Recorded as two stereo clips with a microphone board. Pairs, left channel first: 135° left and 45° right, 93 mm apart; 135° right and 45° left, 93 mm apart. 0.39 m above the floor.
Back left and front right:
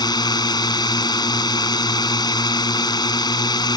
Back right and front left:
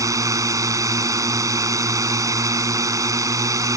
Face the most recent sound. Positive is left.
turn(degrees=95)